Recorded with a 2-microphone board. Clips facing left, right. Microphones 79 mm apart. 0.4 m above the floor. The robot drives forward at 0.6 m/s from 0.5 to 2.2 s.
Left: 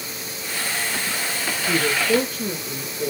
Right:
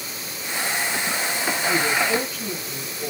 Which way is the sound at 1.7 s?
80° left.